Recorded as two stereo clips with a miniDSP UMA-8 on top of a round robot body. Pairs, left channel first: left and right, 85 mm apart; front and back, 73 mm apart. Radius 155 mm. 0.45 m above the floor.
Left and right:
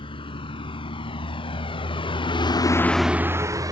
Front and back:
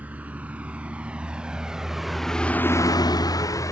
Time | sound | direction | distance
0.0 | a vehicle | 110° left | ?